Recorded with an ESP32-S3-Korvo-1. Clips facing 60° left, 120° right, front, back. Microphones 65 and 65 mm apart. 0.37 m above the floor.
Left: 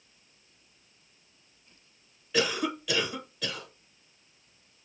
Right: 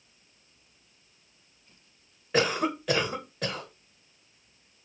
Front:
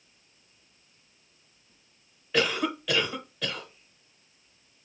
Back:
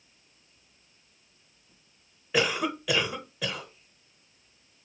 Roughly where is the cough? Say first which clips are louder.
Right 3 dB, even; right.